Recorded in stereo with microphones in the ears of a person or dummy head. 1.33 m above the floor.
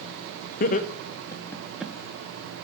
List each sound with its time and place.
0.6 s laughter: 45° left (ahead or behind), 0.8 m; by 1.9 s 5° right (ahead or behind), 0.7 m